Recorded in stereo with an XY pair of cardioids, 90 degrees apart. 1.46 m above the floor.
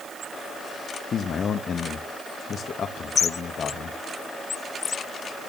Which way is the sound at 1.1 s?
55° left.